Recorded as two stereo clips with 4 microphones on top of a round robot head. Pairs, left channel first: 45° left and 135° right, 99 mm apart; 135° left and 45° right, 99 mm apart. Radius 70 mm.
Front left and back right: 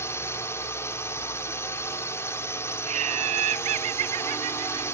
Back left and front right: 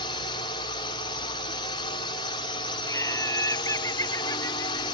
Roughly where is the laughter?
Behind.